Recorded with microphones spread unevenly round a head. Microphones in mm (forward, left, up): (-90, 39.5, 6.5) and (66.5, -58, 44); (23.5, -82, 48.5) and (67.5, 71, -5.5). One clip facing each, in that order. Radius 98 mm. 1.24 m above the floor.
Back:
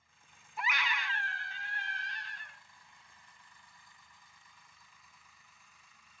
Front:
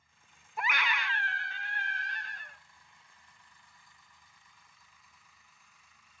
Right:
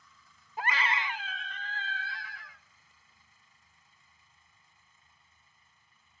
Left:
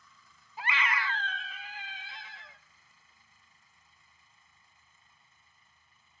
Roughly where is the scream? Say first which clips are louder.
Front 3 dB, right 1 dB; ahead right.